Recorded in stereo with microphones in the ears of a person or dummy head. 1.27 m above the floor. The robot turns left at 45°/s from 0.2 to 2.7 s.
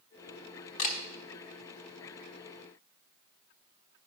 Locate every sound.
0.8 s a camera shutter: 35° left (ahead or behind), 1.0 m